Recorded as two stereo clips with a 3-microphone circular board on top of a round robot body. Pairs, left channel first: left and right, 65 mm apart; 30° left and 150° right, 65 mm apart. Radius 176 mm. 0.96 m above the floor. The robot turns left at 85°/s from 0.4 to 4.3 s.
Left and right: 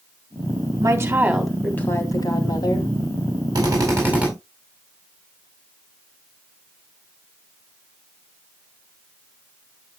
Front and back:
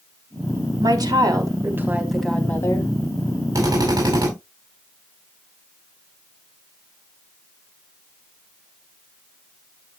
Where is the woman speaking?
120° right, 3.5 m; by 2.9 s 60° left, 3.5 m.